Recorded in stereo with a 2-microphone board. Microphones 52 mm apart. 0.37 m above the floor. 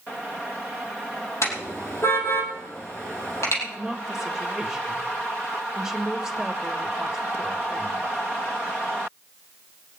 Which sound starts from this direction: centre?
A woman speaking, at 3.6 s.